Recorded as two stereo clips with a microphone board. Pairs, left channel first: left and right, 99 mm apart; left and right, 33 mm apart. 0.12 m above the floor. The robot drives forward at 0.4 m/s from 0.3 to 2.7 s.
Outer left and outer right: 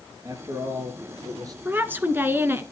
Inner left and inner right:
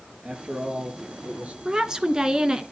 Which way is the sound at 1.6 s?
20° right (ahead or behind).